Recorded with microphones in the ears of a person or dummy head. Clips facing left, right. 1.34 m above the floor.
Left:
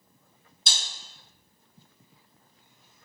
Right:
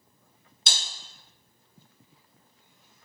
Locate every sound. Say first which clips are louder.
0.7 s breaking glass: right 1 dB; 45° right (ahead or behind), 1.0 m